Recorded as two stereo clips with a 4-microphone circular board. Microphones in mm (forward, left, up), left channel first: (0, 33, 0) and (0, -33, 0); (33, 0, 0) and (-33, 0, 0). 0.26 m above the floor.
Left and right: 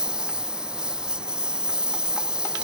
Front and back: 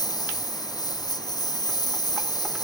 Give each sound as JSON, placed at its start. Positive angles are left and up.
{"t": 0.0, "sound": "a lawn mower", "azimuth_deg": -15}